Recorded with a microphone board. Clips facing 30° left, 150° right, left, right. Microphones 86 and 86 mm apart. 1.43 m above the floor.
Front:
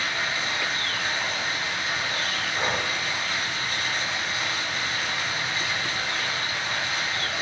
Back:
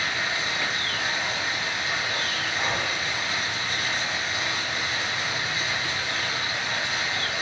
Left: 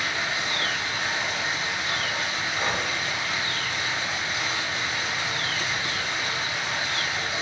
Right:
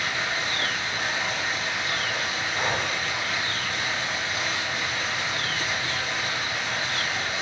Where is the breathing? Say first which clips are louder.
Front 1 dB, right 1 dB; 20° right, 0.6 m.